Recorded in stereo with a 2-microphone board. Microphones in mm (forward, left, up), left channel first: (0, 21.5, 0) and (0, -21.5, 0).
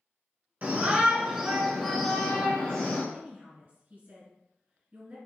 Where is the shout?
40° right (ahead or behind), 1.6 m; by 3.0 s 45° left (ahead or behind), 1.8 m.